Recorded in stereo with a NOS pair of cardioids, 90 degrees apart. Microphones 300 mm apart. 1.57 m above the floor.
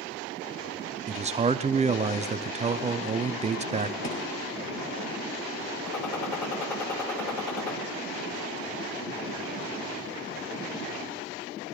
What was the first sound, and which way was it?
A man speaking, 20° right.